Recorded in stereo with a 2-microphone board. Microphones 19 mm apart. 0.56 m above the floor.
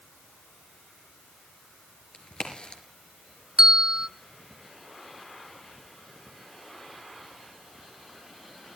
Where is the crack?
85° left, 4.5 m.